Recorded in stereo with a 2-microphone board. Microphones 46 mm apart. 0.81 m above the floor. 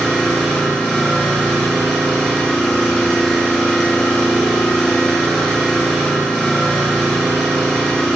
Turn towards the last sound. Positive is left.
turn(degrees=0)  # may be behind; listen again after turning